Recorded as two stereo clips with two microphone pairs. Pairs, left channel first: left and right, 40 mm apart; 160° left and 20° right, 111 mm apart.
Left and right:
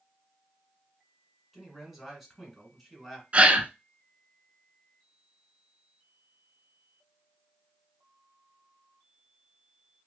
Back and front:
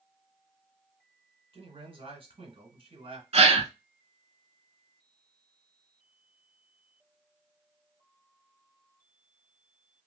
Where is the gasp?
40° right, 0.6 m.